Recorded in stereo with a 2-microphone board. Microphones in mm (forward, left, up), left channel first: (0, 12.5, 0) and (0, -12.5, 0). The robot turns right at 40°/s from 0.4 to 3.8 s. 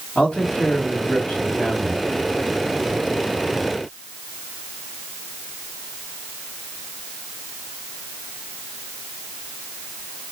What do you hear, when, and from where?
0.1 s a man speaking: 70° left, 2 m; by 2.0 s 135° left, 2 m